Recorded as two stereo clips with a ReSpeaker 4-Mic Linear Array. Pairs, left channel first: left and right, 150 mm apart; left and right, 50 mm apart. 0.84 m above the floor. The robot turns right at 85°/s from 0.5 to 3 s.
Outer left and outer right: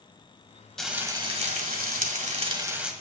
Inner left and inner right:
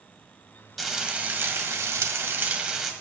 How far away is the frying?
About 1.7 m.